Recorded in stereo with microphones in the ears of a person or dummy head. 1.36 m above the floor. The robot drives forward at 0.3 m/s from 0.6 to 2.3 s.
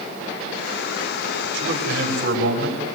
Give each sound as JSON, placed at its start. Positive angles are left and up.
{"t": 1.5, "sound": "a man speaking", "side_deg": -60, "distance_m": 4.5}